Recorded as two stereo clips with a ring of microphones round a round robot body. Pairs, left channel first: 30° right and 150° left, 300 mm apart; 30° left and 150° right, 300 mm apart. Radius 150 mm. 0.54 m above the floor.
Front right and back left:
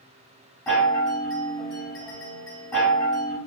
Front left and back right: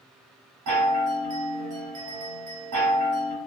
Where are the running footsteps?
I don't hear running footsteps.